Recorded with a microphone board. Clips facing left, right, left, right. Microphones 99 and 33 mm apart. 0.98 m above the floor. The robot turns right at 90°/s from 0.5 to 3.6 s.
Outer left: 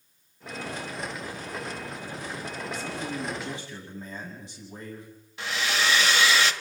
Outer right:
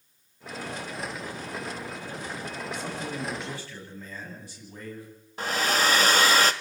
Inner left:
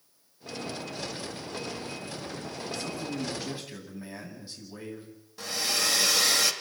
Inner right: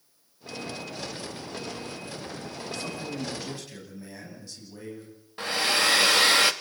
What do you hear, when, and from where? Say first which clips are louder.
2.7 s a man speaking: outer left 1 dB, even; 60° right, 8.5 m; by 5.1 s 20° left, 8.5 m
5.4 s a hair dryer: outer right 3 dB, inner right 5 dB; 40° right (ahead or behind), 1.2 m